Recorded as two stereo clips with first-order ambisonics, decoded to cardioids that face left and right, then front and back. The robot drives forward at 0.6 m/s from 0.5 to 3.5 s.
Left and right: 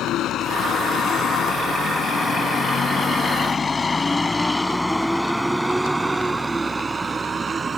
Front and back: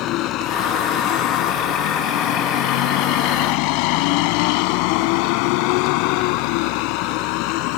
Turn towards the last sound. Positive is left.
turn(degrees=-20)